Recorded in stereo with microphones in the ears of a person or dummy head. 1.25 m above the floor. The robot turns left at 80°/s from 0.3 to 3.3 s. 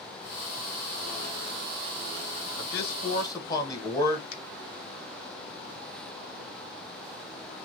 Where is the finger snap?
65° left (ahead or behind), 1.0 m.